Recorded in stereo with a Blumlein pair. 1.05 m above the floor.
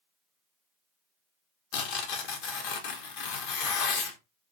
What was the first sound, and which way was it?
Tearing paper, 45° left.